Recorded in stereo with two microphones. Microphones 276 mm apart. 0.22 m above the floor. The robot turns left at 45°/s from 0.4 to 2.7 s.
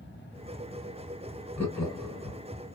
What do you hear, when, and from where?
1.6 s laughter: 5° left (ahead or behind), 1.8 m; by 2.4 s 25° left (ahead or behind), 1.8 m